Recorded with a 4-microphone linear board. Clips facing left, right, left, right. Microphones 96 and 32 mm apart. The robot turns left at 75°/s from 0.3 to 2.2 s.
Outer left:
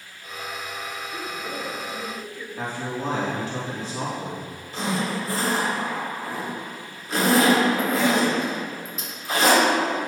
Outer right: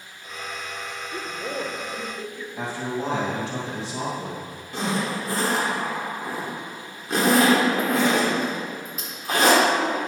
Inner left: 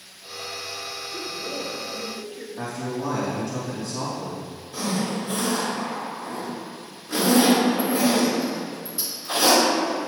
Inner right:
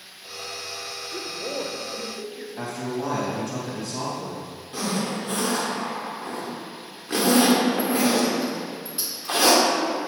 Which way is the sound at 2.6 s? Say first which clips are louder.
Outer right 1 dB, even; 90° right.